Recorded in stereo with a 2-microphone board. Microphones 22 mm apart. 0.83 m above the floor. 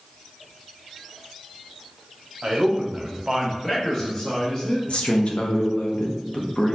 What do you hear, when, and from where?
2.4 s a man speaking: 40° right (ahead or behind), 1.1 m; by 4.8 s 15° left (ahead or behind), 1.5 m
4.9 s a man speaking: 55° left (ahead or behind), 0.7 m